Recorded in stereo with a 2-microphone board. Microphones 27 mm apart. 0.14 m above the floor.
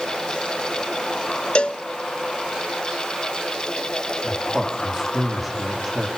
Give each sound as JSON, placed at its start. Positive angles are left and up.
{"t": 1.6, "sound": "a cowbell", "side_deg": 40, "distance_m": 0.8}
{"t": 4.2, "sound": "a man speaking", "side_deg": -10, "distance_m": 6.0}